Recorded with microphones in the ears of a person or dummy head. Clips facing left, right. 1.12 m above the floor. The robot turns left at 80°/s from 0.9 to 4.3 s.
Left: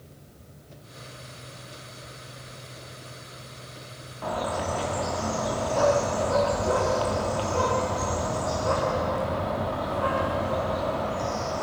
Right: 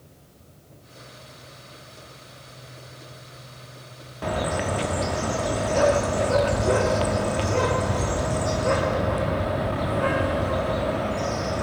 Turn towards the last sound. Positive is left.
turn(degrees=-30)  # may be behind; listen again after turning